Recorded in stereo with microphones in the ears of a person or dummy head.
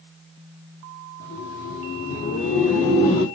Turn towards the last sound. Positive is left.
turn(degrees=45)  # may be behind; listen again after turning